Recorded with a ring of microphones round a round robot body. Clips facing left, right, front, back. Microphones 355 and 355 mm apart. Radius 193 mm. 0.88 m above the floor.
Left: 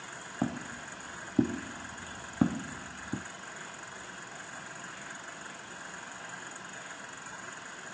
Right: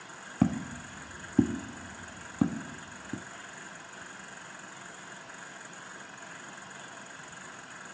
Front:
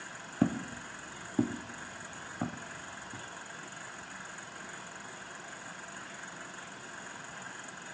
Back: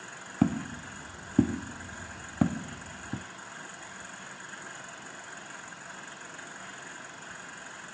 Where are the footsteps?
115° right, 1.2 m; by 3.2 s 170° left, 1.7 m.